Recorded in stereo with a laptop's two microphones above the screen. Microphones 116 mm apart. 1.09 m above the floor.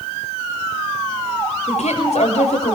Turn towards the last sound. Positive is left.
turn(degrees=75)  # may be behind; listen again after turning